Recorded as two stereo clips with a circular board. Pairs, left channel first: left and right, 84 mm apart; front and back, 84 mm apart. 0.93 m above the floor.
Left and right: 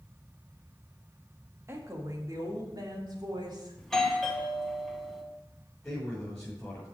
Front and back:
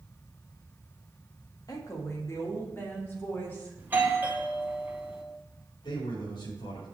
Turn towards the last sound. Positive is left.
turn(degrees=10)